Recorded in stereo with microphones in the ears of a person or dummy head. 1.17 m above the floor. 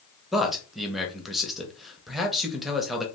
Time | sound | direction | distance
0.3 | a man speaking | centre (ahead or behind) | 0.7 m